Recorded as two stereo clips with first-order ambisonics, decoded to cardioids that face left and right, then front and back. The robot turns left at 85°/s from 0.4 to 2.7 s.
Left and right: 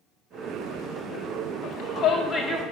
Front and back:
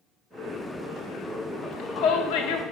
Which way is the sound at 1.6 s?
70° left.